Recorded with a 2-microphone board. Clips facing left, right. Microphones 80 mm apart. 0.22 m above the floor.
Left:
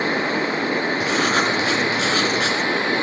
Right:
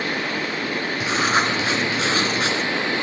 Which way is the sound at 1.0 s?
20° right (ahead or behind).